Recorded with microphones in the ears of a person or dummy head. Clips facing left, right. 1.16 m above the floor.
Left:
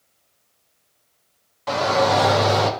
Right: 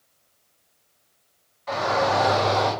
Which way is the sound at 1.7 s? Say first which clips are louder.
Left 4 dB; 75° left (ahead or behind).